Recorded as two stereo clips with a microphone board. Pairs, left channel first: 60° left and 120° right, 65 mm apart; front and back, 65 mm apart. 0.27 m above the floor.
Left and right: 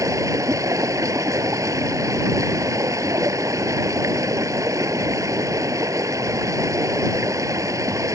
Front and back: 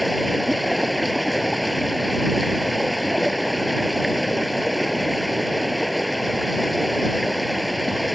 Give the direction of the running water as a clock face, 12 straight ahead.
3 o'clock.